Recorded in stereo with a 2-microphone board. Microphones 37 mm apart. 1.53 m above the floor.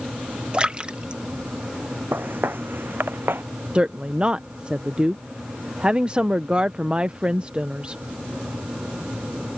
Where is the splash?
25° right (ahead or behind).